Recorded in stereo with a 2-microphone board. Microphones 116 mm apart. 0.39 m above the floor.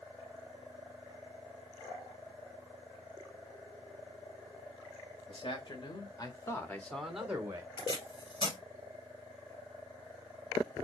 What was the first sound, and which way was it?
A man speaking, 50° left (ahead or behind).